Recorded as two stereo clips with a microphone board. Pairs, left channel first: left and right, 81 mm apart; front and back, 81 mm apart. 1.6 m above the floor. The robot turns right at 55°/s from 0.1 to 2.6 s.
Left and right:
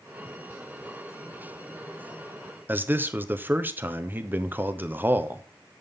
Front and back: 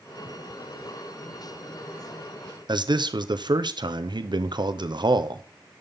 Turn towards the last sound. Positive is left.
turn(degrees=-155)